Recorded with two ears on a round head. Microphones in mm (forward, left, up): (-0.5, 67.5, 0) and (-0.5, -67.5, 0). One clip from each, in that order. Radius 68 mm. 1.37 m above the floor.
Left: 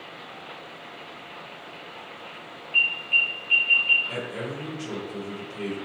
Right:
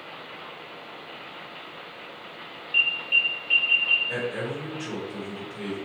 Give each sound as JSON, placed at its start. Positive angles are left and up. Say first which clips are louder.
{"t": 2.7, "sound": "an alarm", "louder": "left 1 dB", "side_deg": 15, "distance_m": 1.4}
{"t": 4.1, "sound": "a man speaking", "louder": "right 3 dB", "side_deg": 50, "distance_m": 1.5}